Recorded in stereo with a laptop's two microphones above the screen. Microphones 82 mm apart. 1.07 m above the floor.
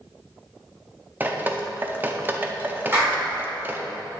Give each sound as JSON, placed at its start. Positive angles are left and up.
{"t": 1.2, "sound": "dripping", "side_deg": -25, "distance_m": 0.5}
{"t": 2.9, "sound": "a clap", "side_deg": -25, "distance_m": 2.5}